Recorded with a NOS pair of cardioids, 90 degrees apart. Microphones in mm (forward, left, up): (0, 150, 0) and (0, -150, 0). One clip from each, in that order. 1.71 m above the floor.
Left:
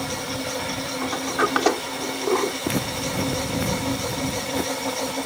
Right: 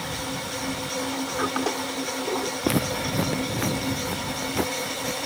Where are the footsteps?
25° right.